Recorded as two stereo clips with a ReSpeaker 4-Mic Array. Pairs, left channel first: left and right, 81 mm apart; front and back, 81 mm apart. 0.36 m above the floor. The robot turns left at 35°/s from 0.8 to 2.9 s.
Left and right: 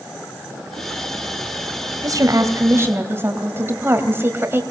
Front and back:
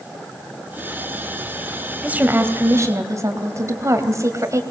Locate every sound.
2.0 s a woman speaking: 115° right, 2 m; by 4.6 s 145° right, 2 m